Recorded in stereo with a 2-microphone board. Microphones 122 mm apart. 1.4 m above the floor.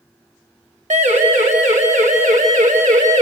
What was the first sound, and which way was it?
A siren, 65° right (ahead or behind).